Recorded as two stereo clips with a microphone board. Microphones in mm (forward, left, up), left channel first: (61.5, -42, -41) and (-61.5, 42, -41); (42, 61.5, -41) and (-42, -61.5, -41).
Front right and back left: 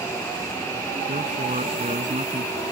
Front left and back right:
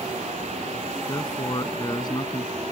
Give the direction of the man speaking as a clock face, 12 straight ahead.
8 o'clock.